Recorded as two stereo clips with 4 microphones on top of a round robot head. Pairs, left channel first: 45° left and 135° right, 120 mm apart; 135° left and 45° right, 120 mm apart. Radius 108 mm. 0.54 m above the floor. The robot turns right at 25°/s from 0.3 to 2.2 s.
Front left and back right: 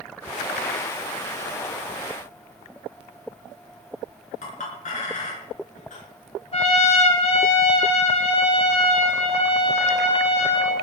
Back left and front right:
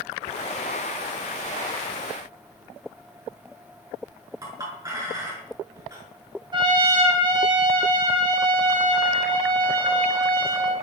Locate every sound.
4.4 s a clink: 20° left, 6 m
6.5 s a trumpet: 10° left, 3.5 m